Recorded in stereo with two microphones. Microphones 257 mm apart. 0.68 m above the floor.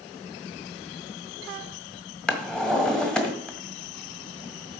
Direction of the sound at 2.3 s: 5° left (ahead or behind).